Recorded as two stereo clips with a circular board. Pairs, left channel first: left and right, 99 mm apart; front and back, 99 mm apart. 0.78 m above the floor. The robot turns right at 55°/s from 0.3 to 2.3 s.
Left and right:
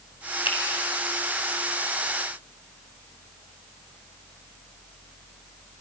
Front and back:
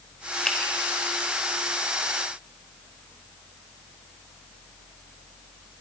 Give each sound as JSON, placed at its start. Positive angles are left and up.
{"t": 0.5, "sound": "a finger snap", "azimuth_deg": 80, "distance_m": 3.5}